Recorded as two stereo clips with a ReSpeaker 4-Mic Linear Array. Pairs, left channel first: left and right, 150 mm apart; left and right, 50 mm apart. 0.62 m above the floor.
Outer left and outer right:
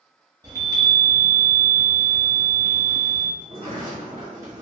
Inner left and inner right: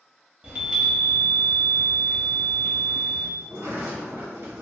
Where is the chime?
25° right (ahead or behind), 0.9 m.